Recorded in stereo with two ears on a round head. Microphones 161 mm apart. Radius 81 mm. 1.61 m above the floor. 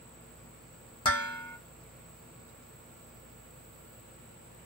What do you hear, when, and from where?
1.1 s dishes clattering: 30° left (ahead or behind), 1.1 m